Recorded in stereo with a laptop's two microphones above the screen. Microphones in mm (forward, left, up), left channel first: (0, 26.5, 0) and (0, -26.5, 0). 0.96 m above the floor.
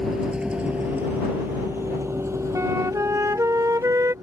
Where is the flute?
70° right (ahead or behind).